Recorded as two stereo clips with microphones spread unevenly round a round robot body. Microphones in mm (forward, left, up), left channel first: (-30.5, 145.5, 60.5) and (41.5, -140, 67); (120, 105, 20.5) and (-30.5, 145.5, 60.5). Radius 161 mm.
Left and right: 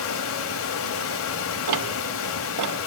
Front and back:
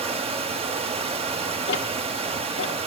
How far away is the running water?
About 1.0 m.